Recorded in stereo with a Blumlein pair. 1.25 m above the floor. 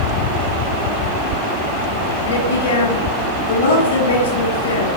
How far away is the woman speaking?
About 2 m.